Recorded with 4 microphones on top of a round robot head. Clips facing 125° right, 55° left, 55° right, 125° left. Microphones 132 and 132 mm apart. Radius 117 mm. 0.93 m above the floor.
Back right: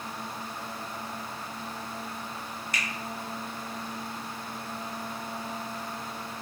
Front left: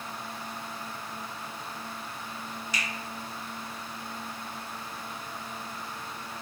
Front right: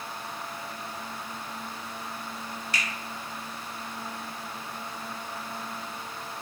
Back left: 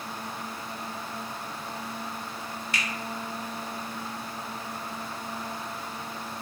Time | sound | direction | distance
2.7 | a finger snap | 100° right | 1.1 m